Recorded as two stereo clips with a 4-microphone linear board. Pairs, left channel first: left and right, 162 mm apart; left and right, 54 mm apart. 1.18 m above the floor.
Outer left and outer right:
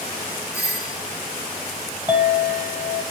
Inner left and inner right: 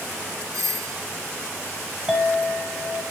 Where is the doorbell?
80° right, 3 m.